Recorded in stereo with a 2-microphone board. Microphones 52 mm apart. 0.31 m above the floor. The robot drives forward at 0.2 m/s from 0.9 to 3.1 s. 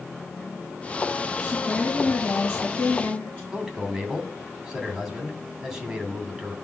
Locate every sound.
1.4 s a woman speaking: 30° left (ahead or behind), 5 m
3.5 s a man speaking: 10° right (ahead or behind), 2.5 m